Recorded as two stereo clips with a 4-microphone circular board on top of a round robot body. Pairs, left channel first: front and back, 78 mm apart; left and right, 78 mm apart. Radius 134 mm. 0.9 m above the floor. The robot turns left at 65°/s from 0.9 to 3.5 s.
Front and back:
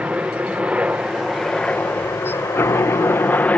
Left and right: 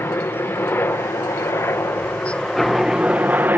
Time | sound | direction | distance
0.0 | a helicopter | 115° left | ?